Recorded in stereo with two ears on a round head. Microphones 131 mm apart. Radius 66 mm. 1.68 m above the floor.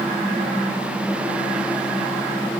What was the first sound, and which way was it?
Only background noise.